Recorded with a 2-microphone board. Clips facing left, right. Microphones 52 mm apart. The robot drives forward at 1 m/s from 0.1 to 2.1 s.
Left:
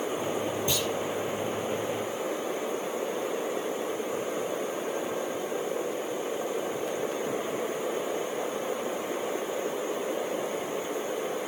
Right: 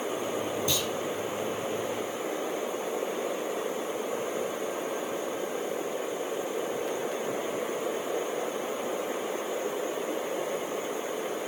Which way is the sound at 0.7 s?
30° left (ahead or behind).